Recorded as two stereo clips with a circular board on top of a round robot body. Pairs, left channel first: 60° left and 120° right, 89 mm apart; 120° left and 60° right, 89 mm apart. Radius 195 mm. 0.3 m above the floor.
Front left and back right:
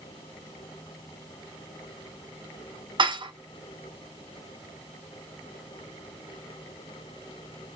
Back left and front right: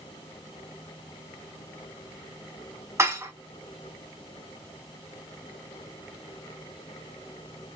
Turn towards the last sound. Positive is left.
turn(degrees=-115)